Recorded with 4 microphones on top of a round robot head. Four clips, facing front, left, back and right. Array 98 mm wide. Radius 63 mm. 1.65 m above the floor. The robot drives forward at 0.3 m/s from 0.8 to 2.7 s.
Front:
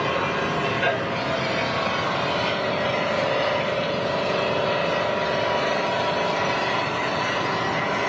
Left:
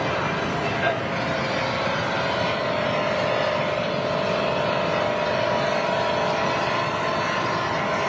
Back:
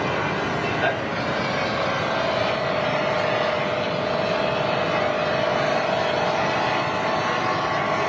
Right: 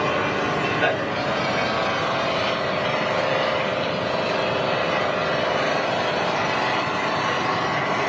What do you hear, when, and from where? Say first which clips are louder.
0.0 s an engine running: right 2 dB, even; 125° right, 4.5 m; by 8.1 s 130° right, 5 m